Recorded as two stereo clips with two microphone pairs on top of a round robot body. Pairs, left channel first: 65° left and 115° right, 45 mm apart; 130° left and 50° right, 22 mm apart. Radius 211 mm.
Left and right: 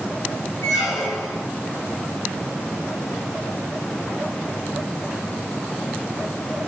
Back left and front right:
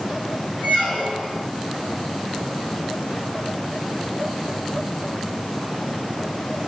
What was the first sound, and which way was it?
A squeak, 95° left.